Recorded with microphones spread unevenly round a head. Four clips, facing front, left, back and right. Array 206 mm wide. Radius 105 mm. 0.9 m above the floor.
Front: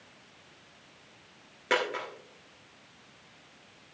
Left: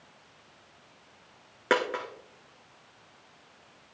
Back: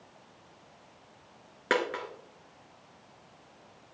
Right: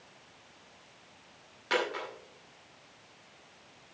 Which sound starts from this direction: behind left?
A dropped coin, at 1.7 s.